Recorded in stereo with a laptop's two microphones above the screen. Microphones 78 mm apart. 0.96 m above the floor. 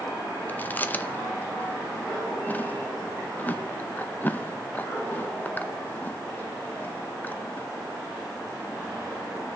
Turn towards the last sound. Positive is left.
turn(degrees=20)  # may be behind; listen again after turning